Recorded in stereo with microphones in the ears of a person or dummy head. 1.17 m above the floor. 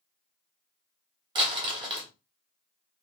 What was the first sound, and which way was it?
Crumpling, 30° right (ahead or behind).